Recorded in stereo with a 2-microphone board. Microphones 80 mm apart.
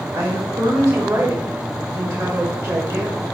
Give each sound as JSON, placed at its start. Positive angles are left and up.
{"t": 0.1, "sound": "a woman speaking", "side_deg": -50, "distance_m": 1.3}